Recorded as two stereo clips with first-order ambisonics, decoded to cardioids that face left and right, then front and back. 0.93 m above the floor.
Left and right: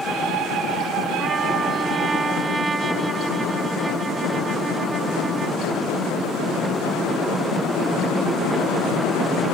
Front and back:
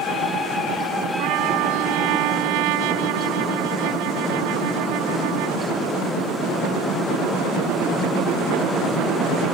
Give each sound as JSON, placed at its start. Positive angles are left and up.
{"t": 1.2, "sound": "a trumpet", "azimuth_deg": -165}